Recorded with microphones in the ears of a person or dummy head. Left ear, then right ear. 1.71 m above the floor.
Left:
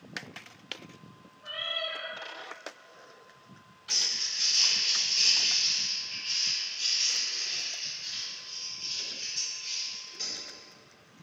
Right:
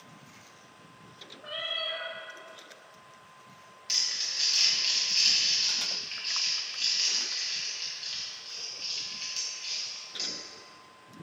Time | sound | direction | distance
1.4 | a cat meowing | 65° right (ahead or behind) | 2 m
3.9 | crumpling | 20° right (ahead or behind) | 1.9 m